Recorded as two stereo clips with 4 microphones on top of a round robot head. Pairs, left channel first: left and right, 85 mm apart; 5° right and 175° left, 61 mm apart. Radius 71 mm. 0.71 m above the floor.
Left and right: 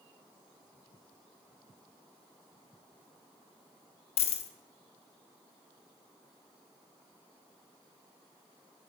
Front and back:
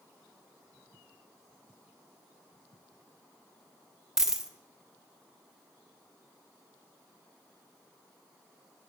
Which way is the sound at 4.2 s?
90° left.